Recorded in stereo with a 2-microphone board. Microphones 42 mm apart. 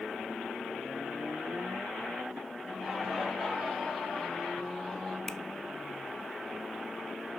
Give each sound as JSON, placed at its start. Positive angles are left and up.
{"t": 2.6, "sound": "laughter", "side_deg": 0, "distance_m": 8.5}
{"t": 5.3, "sound": "a finger snap", "side_deg": 15, "distance_m": 0.8}